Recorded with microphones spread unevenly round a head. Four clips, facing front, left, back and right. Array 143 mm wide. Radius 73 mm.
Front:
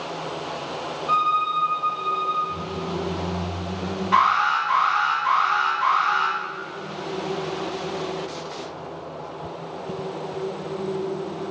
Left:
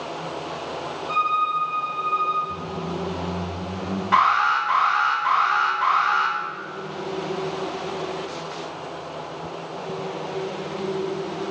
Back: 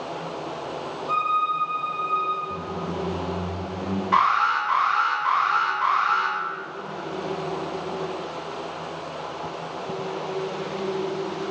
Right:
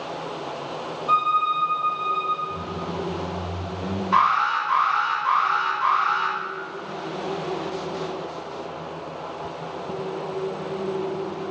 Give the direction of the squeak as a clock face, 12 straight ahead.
9 o'clock.